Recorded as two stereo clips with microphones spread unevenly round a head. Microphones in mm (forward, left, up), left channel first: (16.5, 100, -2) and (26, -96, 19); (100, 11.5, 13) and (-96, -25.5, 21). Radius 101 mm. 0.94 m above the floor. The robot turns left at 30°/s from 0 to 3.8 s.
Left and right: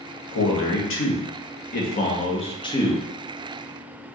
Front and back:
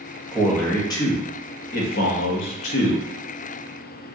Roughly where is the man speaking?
Left.